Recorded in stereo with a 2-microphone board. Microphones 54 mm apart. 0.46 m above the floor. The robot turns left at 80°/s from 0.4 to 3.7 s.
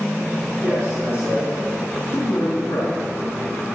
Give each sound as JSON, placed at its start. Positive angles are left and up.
{"t": 0.6, "sound": "a man speaking", "azimuth_deg": -110, "distance_m": 6.0}